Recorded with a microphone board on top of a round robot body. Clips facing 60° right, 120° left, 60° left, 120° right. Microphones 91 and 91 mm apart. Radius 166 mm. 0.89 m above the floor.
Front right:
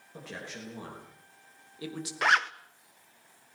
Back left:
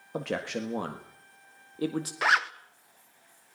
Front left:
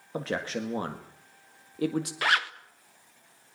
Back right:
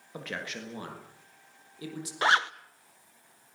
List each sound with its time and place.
0.1 s a man speaking: 120° left, 2.0 m; by 2.1 s 80° left, 2 m
2.2 s a zipper: 155° right, 1.0 m